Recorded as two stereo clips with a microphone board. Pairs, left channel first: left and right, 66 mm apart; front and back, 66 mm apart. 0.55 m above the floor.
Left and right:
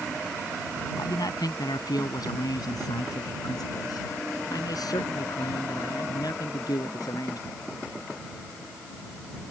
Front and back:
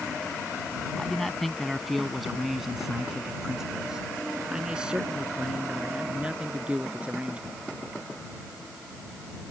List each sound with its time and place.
1.0 s a man speaking: 85° left; by 7.6 s 110° left